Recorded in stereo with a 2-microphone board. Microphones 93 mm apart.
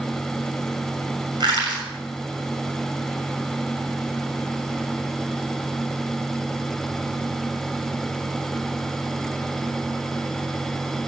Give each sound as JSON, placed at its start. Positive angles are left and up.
{"t": 1.4, "sound": "crushing", "side_deg": -50, "distance_m": 6.5}